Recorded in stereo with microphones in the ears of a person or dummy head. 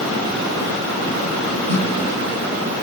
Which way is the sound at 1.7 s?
30° left (ahead or behind).